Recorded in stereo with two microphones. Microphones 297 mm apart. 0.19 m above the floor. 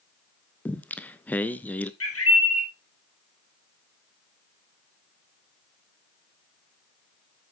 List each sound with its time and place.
0.7 s singing: 5° left (ahead or behind), 0.5 m
2.0 s a bird: 50° left (ahead or behind), 2.5 m